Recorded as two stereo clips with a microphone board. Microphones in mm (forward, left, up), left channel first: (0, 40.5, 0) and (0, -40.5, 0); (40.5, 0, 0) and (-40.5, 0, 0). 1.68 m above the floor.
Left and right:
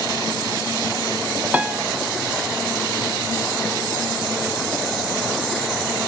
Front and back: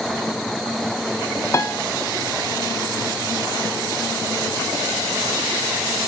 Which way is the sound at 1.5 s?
25° right.